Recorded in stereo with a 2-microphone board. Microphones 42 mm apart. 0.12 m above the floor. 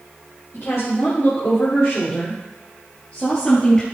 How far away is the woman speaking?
About 4 m.